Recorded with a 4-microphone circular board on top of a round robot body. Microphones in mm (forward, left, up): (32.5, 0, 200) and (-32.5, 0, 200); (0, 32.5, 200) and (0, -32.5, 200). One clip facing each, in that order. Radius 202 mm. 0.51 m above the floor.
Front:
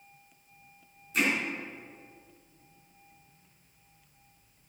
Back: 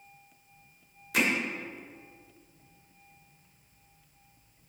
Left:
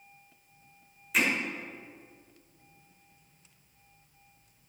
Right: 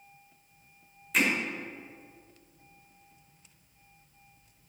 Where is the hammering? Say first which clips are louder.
Back 1 dB, right 1 dB; straight behind, 1.7 m.